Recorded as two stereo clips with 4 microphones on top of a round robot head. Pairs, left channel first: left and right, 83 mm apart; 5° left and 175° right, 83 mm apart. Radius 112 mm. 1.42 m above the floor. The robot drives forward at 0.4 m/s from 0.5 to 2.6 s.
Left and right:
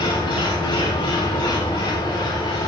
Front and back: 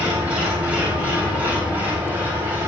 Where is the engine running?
110° left, 8 m; by 2.7 s 115° left, 8 m.